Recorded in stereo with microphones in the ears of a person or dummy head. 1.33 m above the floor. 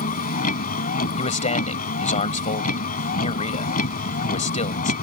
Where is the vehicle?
45° left (ahead or behind).